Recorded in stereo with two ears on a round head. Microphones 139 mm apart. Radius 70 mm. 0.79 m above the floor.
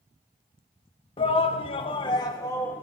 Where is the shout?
35° left (ahead or behind), 0.8 m; by 2.8 s 10° left (ahead or behind), 0.8 m.